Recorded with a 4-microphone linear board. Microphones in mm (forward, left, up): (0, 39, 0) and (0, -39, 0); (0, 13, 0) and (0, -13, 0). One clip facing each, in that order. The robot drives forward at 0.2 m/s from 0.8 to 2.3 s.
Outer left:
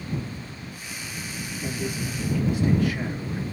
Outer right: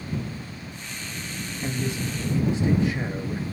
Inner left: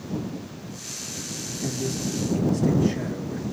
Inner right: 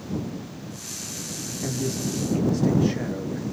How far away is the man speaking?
About 1.2 m.